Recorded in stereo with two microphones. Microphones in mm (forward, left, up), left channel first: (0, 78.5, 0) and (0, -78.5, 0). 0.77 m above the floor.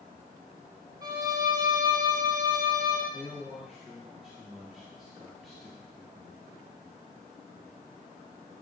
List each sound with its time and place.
1.0 s a violin: 25° right (ahead or behind), 0.9 m
3.1 s a man speaking: centre (ahead or behind), 1.2 m